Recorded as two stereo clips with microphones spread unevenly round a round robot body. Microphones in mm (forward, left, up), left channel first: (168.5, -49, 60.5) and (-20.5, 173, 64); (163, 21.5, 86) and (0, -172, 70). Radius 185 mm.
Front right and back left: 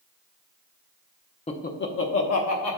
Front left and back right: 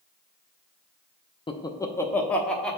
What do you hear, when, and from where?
1.5 s laughter: 10° right, 0.7 m; by 2.8 s 40° right, 1.4 m